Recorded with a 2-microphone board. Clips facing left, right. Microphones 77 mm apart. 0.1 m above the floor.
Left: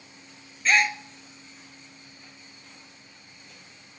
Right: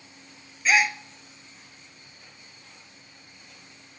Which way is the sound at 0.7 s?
5° right (ahead or behind).